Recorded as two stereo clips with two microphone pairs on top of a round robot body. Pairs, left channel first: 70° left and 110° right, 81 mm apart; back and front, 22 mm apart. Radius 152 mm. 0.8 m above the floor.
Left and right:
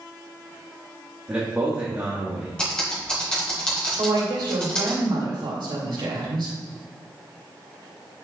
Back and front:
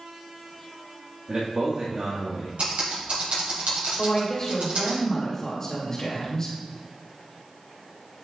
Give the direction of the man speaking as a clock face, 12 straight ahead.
1 o'clock.